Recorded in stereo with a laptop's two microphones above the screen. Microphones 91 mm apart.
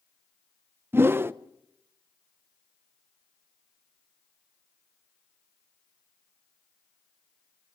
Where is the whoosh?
25° right (ahead or behind), 0.6 m.